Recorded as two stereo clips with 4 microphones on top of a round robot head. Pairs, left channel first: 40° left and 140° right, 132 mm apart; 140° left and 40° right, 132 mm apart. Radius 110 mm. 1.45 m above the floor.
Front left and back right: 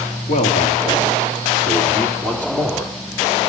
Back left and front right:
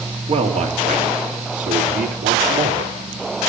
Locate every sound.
0.3 s a man speaking: straight ahead, 3 m; by 2.9 s 45° right, 3.5 m